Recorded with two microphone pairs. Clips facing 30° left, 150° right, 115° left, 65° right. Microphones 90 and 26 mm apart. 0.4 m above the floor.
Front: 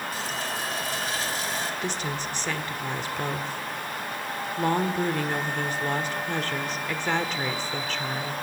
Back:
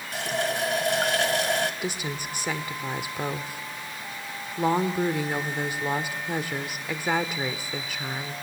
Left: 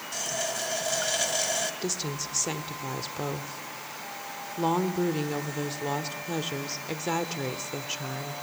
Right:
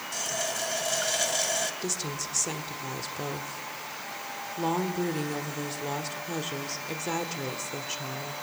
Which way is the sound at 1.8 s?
155° left.